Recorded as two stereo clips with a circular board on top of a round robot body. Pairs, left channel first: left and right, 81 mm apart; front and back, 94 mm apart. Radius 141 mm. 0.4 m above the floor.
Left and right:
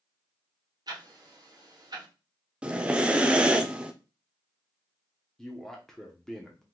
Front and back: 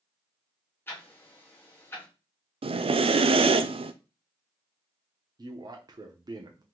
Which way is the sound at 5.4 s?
170° left.